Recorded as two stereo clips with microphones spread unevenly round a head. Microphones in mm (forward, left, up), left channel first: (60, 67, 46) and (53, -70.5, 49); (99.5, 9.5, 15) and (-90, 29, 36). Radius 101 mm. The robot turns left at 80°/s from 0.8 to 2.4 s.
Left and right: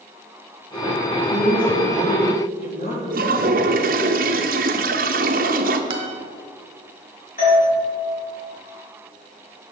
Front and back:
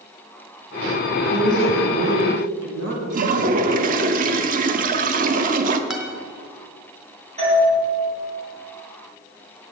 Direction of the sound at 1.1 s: 115° right.